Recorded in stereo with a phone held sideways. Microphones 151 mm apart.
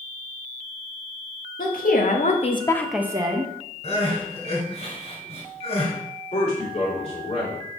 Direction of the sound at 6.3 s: 40° left (ahead or behind).